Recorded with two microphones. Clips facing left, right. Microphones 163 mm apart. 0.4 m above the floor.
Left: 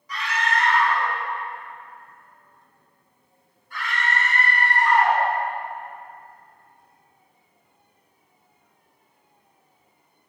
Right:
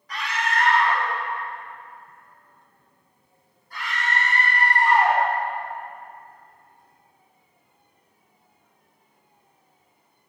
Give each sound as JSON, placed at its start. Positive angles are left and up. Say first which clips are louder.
{"t": 0.1, "sound": "a scream", "louder": "left 1 dB", "side_deg": -65, "distance_m": 2.0}